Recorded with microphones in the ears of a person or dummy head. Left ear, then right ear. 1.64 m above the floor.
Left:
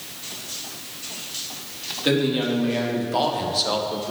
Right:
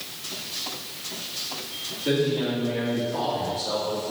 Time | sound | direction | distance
2.0 | a man speaking | 80° left | 3 m